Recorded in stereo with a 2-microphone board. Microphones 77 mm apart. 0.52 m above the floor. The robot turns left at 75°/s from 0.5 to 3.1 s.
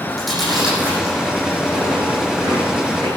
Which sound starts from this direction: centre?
Chewing, at 0.1 s.